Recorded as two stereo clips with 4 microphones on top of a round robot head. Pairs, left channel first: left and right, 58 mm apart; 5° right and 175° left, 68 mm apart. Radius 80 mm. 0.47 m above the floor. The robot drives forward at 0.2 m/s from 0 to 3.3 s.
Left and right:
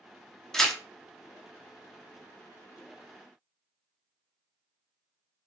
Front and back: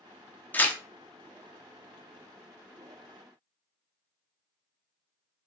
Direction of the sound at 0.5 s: 20° left.